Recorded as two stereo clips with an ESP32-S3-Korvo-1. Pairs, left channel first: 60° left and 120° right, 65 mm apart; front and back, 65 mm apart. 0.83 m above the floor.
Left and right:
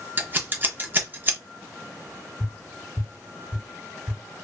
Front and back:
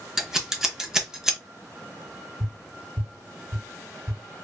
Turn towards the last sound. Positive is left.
turn(degrees=150)